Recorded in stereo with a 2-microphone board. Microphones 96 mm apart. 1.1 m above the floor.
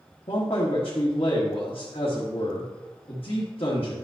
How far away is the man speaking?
About 1.3 m.